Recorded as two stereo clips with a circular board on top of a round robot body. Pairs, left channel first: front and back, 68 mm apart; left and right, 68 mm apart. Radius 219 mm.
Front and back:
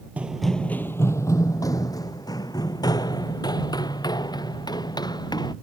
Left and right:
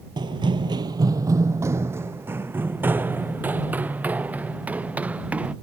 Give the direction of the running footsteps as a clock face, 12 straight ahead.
4 o'clock.